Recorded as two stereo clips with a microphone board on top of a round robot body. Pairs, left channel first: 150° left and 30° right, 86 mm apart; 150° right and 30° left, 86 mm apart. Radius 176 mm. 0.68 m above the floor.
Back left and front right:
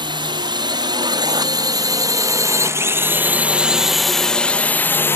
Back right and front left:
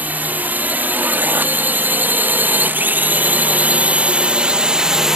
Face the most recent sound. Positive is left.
turn(degrees=110)